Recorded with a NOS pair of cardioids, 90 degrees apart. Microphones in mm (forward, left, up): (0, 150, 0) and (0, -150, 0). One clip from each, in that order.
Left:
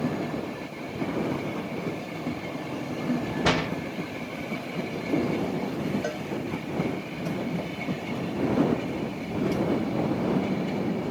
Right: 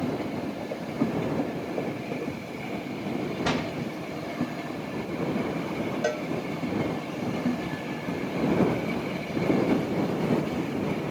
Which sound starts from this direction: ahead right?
A cowbell, at 6.0 s.